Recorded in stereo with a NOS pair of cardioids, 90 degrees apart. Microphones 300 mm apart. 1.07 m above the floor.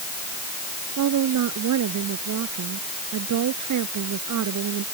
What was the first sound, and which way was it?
A woman speaking, 70° right.